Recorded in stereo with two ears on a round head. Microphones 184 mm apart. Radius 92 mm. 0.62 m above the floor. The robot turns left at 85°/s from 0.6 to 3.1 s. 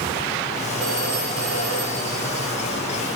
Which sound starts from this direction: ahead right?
A phone ringing, at 0.8 s.